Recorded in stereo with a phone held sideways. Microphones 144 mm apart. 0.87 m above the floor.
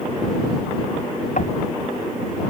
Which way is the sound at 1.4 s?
60° left (ahead or behind).